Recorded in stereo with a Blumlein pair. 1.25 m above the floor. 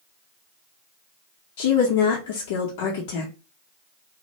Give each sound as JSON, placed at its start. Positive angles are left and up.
{"t": 1.6, "sound": "a woman speaking", "azimuth_deg": 50, "distance_m": 0.7}